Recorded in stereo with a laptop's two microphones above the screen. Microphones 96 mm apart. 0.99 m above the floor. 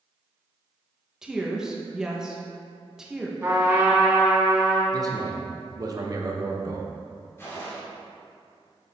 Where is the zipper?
I don't hear a zipper.